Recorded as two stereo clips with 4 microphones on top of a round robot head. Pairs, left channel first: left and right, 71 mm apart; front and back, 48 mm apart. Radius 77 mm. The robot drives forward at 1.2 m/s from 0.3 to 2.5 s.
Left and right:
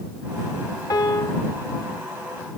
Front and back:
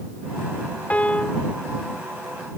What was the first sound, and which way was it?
A piano, 55° left.